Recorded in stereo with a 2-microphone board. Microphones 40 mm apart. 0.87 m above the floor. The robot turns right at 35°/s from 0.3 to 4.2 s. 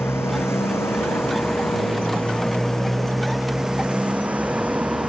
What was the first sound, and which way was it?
A motorcycle, 80° left.